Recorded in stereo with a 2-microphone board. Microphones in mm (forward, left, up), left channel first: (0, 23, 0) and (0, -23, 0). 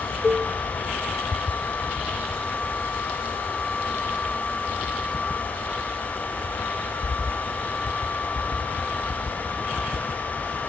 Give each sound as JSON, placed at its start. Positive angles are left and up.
{"t": 0.2, "sound": "a cowbell", "side_deg": -25, "distance_m": 2.0}